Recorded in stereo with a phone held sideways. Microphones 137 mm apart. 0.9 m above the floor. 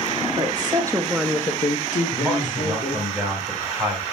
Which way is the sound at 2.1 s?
10° right (ahead or behind).